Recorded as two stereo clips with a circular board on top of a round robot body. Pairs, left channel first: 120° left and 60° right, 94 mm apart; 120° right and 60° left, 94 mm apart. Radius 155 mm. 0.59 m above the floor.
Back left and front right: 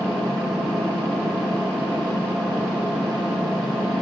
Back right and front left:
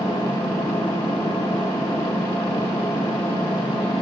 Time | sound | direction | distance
0.0 | an engine running | 165° right | 2 m